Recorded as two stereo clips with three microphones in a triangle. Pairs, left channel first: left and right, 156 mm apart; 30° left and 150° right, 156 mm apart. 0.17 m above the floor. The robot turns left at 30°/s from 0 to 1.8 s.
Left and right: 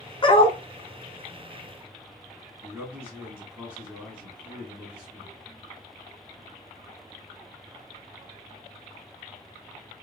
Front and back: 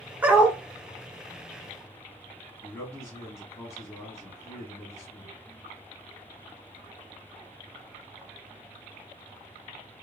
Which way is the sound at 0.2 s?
135° left.